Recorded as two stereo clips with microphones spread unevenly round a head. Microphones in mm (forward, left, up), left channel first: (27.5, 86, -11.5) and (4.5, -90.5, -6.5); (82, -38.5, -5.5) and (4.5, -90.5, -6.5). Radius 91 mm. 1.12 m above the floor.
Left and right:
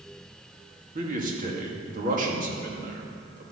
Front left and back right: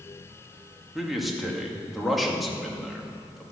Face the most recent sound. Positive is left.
turn(degrees=-55)